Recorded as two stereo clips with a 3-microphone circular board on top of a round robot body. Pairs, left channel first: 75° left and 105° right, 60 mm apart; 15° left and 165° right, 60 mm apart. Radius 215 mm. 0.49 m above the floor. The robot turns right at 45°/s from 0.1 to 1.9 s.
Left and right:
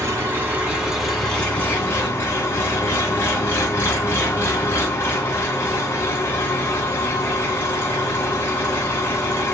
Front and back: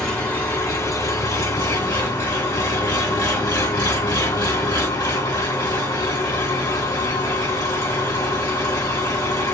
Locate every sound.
0.0 s an engine running: 60° right, 2.5 m; by 9.6 s 20° left, 2.5 m